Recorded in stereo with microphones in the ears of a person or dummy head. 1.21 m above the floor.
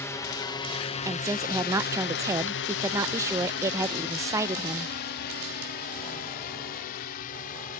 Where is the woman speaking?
20° right (ahead or behind).